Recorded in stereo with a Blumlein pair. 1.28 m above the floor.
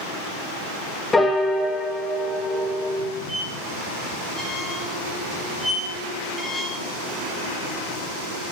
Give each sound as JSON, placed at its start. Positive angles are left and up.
{"t": 1.1, "sound": "a piano", "azimuth_deg": 10, "distance_m": 0.8}
{"t": 3.3, "sound": "a squeak", "azimuth_deg": 5, "distance_m": 1.2}